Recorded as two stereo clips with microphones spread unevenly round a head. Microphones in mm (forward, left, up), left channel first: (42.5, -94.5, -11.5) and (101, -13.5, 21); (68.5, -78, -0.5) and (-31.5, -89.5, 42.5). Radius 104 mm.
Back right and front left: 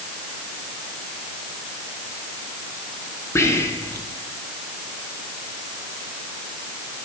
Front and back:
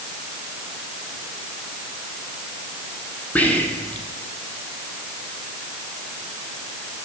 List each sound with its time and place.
3.4 s whispering: 65° right, 1.4 m